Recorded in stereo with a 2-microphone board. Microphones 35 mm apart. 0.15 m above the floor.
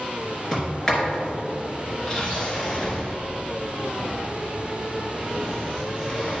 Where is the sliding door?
15° left (ahead or behind), 2.5 m.